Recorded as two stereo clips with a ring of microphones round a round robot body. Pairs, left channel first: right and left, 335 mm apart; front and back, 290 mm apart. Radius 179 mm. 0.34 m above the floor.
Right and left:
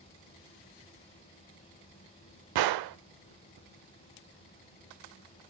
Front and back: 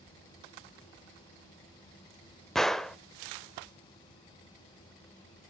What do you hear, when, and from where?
2.5 s a gunshot: 90° left, 0.5 m